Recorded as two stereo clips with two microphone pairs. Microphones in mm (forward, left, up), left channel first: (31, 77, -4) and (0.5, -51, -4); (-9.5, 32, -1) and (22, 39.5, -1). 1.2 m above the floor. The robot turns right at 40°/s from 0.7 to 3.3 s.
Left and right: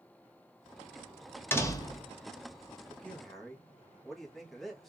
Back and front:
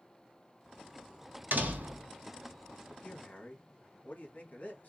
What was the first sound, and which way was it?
A door slam, 5° left.